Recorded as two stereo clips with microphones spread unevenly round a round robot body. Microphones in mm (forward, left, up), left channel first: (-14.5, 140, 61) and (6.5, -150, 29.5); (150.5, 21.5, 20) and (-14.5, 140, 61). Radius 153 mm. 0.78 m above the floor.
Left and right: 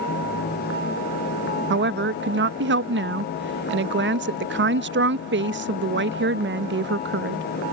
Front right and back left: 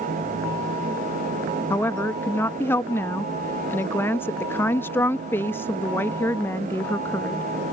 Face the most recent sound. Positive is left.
turn(degrees=-100)